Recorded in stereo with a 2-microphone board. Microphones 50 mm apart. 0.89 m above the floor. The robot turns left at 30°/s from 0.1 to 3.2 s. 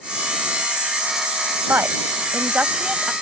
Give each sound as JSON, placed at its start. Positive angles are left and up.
{"t": 1.7, "sound": "a woman speaking", "azimuth_deg": -125}